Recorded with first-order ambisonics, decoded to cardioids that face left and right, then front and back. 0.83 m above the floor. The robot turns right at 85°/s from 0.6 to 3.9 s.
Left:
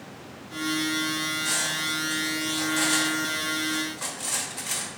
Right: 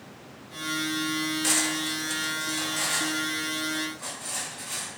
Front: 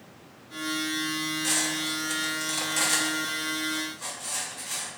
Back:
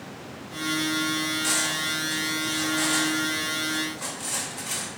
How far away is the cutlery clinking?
About 0.6 m.